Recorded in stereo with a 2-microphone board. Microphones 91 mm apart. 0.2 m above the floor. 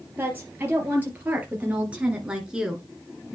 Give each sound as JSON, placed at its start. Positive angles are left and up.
{"t": 0.2, "sound": "a woman speaking", "side_deg": -20, "distance_m": 3.5}